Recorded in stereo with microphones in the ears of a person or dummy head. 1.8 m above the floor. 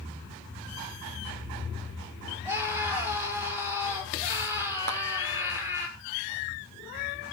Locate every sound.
2.5 s a scream: 15° right (ahead or behind), 6.5 m
4.9 s a clap: 55° right (ahead or behind), 2.5 m